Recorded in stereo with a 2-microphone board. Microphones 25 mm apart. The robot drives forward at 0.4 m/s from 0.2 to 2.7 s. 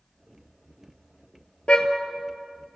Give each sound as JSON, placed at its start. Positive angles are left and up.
{"t": 1.7, "sound": "a car horn", "side_deg": 50, "distance_m": 2.0}